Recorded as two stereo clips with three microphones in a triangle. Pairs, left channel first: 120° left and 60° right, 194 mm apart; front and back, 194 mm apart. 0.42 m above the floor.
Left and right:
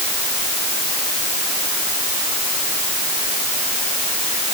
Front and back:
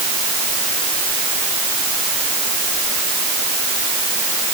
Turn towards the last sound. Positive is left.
No sound to turn to.